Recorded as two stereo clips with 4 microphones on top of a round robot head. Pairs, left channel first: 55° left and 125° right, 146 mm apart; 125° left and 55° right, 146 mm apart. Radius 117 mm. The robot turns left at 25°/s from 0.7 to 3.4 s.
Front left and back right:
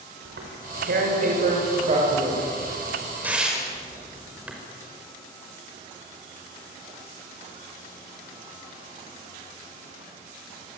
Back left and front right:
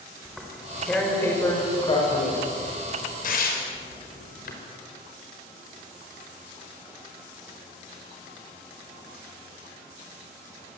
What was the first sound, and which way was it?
Tearing paper, 145° right.